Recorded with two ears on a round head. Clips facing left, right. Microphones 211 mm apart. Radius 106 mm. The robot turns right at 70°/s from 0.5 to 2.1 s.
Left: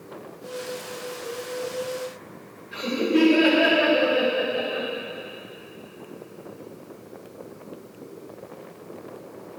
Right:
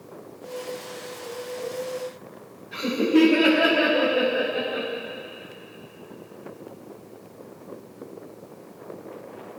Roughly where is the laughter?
Centre.